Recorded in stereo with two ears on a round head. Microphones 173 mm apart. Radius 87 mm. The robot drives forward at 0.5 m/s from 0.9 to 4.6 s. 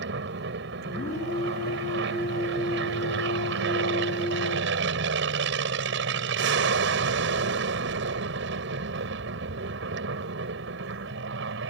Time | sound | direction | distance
0.0 | an aircraft | 60° right (ahead or behind) | ?